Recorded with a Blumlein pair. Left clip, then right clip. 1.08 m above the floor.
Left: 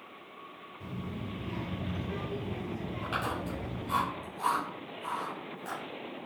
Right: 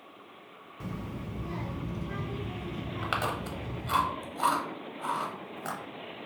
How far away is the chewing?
About 1.0 m.